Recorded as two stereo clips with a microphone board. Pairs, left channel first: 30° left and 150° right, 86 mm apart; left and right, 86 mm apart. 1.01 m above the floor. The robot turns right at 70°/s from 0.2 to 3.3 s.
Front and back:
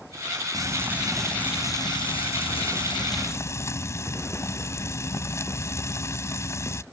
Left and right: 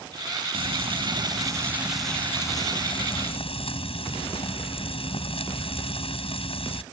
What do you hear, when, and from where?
0.5 s frying: 105° right; by 6.8 s 90° left